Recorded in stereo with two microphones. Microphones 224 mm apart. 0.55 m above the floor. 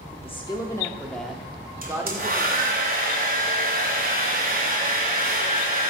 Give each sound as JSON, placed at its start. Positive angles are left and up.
{"t": 0.1, "sound": "a woman speaking", "side_deg": 30, "distance_m": 1.1}
{"t": 1.8, "sound": "a hair dryer", "side_deg": -45, "distance_m": 2.0}